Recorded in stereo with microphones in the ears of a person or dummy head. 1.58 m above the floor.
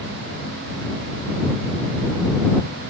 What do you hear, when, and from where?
Only background noise.